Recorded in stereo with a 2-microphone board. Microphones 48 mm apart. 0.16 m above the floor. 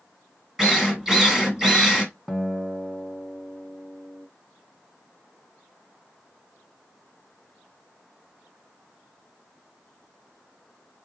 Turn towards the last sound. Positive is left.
turn(degrees=0)  # may be behind; listen again after turning